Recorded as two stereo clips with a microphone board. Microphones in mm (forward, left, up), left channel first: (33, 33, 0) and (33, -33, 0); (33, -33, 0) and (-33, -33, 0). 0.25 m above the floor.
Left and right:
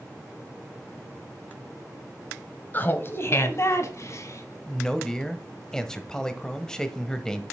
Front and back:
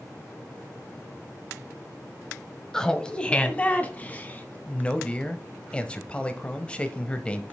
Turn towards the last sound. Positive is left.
turn(degrees=30)